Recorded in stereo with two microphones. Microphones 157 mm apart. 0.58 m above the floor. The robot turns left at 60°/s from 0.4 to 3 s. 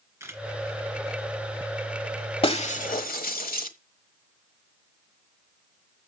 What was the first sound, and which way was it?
A camera shutter, 20° right (ahead or behind).